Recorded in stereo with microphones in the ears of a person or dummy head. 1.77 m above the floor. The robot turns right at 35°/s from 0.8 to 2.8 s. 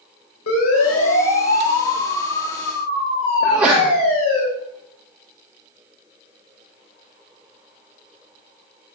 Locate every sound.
0.5 s a siren: 85° left, 7.5 m; by 4.4 s 35° left (ahead or behind), 10.5 m
3.4 s a sneeze: 10° right (ahead or behind), 2.5 m